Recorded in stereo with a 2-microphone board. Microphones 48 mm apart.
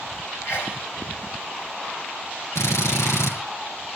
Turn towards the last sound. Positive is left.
turn(degrees=80)